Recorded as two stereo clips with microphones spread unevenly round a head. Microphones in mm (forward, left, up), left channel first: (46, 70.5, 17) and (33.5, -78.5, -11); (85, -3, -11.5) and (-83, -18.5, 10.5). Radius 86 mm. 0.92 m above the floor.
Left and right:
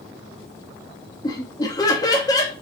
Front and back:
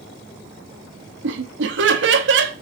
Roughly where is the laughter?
Behind.